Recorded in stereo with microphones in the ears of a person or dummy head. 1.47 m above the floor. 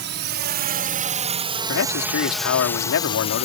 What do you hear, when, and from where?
0.0 s a drone: 55° right (ahead or behind); by 3.5 s 35° left (ahead or behind)
1.7 s a man speaking: 80° left